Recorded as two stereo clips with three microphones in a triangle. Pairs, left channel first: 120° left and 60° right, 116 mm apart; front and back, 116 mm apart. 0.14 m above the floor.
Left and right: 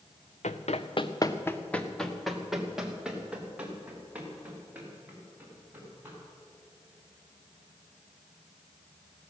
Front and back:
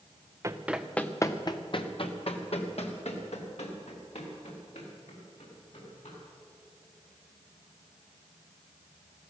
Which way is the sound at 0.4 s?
120° left.